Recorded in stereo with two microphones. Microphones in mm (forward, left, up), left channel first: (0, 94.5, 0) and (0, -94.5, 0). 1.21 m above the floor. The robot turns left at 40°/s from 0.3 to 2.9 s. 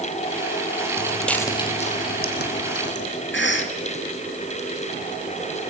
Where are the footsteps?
15° right (ahead or behind), 1.8 m; by 3.0 s 70° left (ahead or behind), 3.5 m.